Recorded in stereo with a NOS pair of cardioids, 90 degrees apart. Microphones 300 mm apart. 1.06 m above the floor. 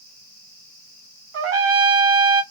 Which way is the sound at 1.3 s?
50° right.